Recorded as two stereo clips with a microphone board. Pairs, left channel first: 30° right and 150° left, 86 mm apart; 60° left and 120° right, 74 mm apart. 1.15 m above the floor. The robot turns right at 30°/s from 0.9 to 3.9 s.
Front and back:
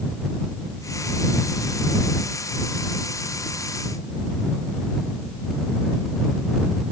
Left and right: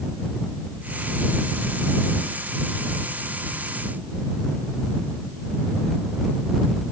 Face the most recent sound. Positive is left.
No sound to turn to.